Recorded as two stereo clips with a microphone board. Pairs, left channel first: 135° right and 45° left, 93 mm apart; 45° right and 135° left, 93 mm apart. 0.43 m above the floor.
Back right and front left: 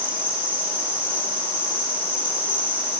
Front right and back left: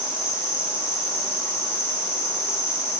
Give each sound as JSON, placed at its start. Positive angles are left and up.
{"t": 0.0, "sound": "an insect", "azimuth_deg": 15, "distance_m": 10.0}